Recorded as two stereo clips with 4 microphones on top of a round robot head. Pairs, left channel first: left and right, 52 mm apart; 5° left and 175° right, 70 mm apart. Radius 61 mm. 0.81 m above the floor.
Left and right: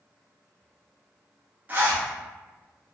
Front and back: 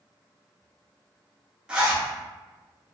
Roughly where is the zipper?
Right.